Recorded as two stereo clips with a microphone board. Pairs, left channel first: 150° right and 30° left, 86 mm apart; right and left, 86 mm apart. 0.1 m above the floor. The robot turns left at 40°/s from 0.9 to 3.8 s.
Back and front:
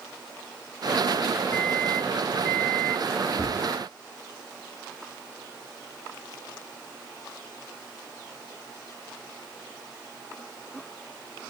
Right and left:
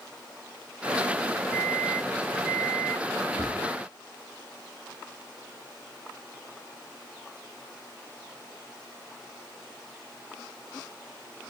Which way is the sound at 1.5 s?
175° left.